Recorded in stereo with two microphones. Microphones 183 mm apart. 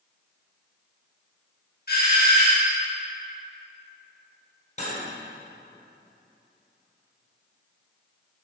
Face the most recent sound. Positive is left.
turn(degrees=40)  # may be behind; listen again after turning